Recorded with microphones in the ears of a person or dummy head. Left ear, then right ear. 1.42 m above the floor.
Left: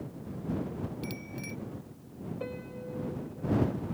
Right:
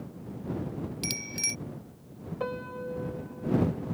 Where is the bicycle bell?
55° right (ahead or behind).